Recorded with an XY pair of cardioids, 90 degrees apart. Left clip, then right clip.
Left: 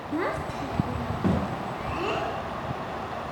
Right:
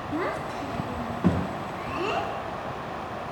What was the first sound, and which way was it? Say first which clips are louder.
A child speaking: left 1 dB; 5° left.